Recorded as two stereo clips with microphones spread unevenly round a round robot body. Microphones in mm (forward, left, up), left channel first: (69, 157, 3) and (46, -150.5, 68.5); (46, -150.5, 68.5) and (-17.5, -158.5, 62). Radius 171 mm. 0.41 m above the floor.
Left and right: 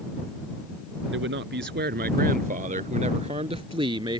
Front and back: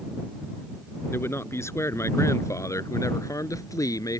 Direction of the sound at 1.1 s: 40° right.